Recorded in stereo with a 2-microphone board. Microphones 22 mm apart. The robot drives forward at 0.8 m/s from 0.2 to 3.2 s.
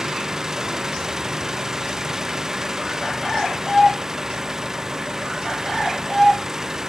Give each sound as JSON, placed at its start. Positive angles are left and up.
{"t": 0.0, "sound": "an engine running", "side_deg": -20}